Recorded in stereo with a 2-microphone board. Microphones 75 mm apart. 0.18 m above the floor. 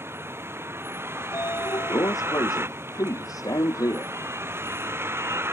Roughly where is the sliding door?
Left.